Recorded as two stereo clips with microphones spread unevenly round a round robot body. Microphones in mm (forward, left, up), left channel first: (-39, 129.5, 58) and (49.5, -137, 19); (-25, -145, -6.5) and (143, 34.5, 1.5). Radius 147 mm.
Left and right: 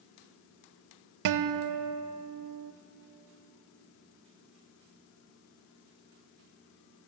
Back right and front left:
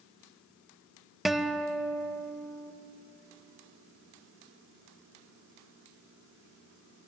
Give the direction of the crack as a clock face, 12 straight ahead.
I don't hear a crack.